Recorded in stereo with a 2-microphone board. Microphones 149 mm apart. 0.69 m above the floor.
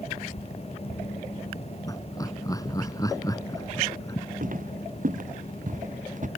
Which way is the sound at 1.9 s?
25° left (ahead or behind).